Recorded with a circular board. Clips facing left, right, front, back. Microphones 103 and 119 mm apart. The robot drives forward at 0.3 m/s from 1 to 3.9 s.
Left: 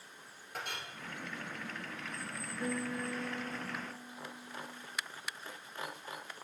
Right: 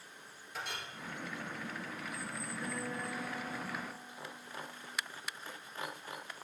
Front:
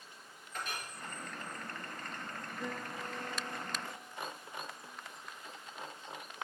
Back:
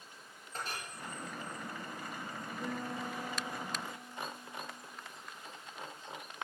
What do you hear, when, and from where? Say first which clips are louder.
0.5 s a clink: even, even; 125° left, 2 m
2.6 s a guitar: left 5 dB, back 3 dB; 85° left, 3.5 m; by 4.9 s 95° left, 3.5 m